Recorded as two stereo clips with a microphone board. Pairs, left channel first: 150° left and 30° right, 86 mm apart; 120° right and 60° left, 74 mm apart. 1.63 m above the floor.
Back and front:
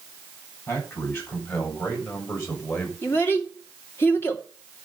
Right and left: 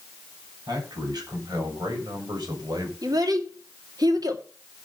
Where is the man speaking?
90° left, 7 m; by 2.9 s 95° left, 5.5 m.